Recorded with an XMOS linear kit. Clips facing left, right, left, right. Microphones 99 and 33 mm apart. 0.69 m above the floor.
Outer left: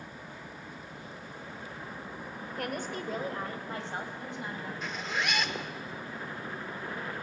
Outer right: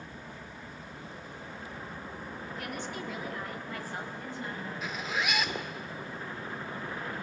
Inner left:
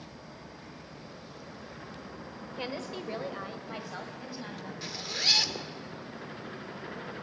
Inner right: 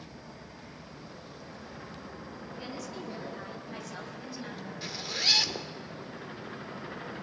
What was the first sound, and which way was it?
A woman speaking, 50° left (ahead or behind).